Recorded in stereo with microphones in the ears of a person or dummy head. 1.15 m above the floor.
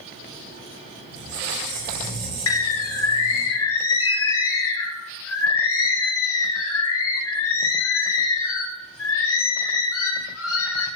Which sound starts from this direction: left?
A bird, at 2.5 s.